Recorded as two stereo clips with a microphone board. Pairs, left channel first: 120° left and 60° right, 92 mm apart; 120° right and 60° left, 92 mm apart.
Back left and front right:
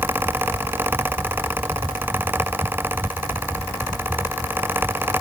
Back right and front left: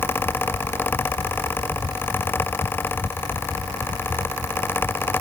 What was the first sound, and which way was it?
Only background noise.